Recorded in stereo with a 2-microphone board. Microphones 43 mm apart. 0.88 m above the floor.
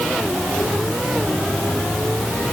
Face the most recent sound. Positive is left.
No sound to turn to.